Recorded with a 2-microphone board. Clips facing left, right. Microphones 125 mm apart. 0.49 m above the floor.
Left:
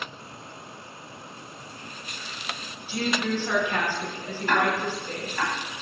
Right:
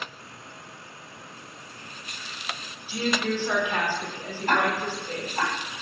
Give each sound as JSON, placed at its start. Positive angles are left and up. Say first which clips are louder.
{"t": 2.9, "sound": "a woman speaking", "louder": "even", "side_deg": -10, "distance_m": 1.0}
{"t": 4.5, "sound": "ticking", "louder": "even", "side_deg": -40, "distance_m": 1.1}